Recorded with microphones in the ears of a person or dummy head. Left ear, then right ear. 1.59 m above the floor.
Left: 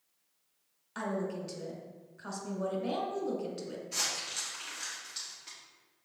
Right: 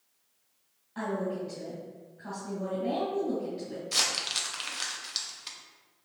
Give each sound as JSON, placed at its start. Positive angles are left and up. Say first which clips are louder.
{"t": 0.9, "sound": "a woman speaking", "louder": "right 3 dB", "side_deg": 60, "distance_m": 1.5}
{"t": 3.9, "sound": "crumpling", "louder": "right 7 dB", "side_deg": -40, "distance_m": 0.7}